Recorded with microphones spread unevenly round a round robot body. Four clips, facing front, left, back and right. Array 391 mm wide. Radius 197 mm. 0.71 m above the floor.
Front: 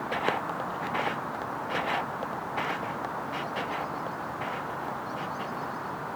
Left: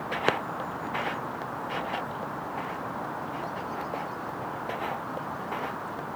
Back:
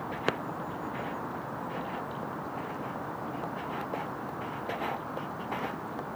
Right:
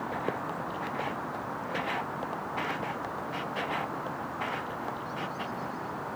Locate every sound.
Only background noise.